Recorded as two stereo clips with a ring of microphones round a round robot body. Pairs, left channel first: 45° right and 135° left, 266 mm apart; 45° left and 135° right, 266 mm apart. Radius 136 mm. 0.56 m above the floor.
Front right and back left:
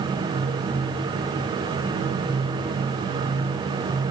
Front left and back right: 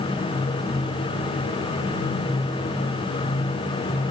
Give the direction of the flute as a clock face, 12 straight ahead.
I don't hear a flute.